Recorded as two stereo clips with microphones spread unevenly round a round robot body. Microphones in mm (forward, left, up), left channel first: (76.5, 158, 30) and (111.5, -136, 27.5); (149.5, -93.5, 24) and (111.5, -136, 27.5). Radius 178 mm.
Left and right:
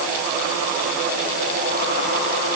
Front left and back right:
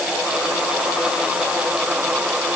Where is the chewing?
I don't hear chewing.